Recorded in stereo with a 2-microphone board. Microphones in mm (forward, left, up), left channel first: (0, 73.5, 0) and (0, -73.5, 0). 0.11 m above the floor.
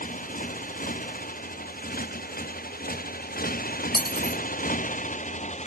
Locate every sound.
0.0 s a motorcycle: 70° left (ahead or behind); by 5.7 s 50° left (ahead or behind)
3.9 s cutlery clinking: 30° right (ahead or behind)